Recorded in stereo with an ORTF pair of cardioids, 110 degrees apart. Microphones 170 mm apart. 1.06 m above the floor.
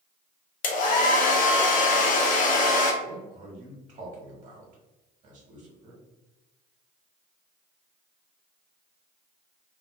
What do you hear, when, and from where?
0.6 s a hair dryer: 60° left, 0.6 m
3.0 s a man speaking: 50° right, 1.1 m